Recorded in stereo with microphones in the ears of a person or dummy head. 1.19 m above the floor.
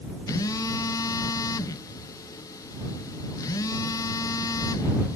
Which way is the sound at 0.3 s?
20° left (ahead or behind).